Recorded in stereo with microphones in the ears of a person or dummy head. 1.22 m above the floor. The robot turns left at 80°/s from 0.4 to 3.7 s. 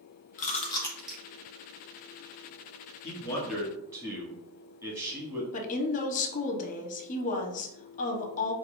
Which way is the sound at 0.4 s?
45° left (ahead or behind).